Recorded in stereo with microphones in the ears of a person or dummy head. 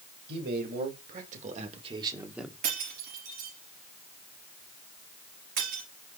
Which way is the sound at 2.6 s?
55° right (ahead or behind).